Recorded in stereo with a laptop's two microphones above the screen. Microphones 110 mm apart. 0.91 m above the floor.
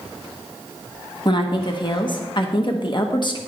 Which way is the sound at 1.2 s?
45° left (ahead or behind).